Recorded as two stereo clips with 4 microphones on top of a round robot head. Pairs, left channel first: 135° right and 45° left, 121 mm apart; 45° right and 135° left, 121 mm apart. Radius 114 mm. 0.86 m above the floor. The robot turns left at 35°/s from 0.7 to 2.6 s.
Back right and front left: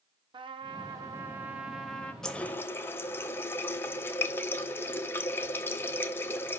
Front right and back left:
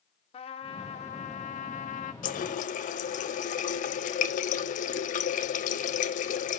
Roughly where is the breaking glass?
I don't hear breaking glass.